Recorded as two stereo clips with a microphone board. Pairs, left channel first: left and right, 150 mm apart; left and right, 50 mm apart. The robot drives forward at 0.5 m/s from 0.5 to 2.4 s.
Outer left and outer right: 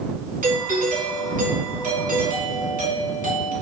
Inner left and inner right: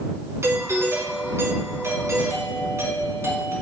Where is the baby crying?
I don't hear a baby crying.